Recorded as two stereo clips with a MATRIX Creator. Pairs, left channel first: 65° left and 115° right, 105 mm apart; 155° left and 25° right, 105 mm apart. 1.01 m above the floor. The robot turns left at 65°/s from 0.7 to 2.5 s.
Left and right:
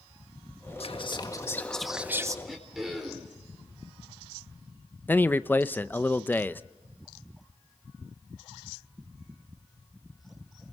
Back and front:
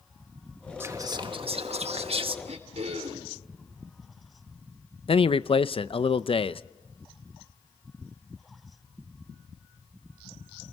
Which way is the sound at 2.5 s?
20° right.